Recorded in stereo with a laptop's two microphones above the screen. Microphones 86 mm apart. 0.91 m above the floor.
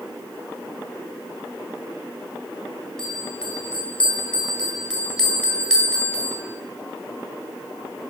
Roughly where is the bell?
Centre.